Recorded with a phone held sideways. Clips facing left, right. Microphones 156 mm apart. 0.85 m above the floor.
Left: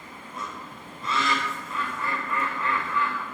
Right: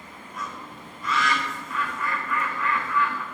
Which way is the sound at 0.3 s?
25° left (ahead or behind).